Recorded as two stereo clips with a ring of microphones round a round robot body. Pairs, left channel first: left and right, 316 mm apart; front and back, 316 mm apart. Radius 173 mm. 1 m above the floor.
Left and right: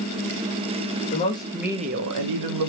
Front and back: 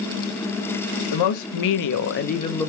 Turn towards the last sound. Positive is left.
turn(degrees=-85)